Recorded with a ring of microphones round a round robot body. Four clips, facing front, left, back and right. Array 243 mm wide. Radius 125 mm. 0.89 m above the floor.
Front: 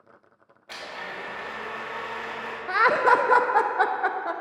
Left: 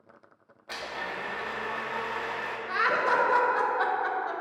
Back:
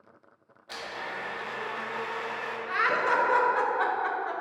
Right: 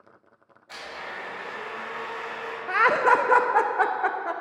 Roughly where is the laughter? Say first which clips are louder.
Right 6 dB, front 7 dB; ahead right.